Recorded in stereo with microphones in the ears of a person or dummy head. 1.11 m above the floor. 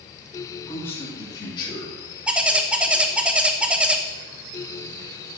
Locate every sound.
0.7 s a man speaking: 10° left (ahead or behind), 3 m; by 1.9 s 35° left (ahead or behind), 2.5 m
2.3 s a bird: 5° right (ahead or behind), 0.6 m